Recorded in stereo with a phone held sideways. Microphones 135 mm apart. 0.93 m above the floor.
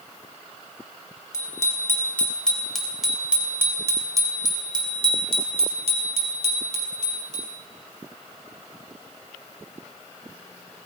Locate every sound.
1.3 s a bicycle bell: 25° left (ahead or behind), 3 m; by 7.5 s 65° right (ahead or behind), 4.5 m